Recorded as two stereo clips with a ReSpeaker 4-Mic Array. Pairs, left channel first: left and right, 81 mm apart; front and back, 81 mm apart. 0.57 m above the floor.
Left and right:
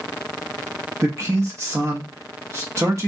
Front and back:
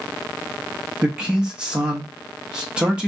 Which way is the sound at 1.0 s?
110° right.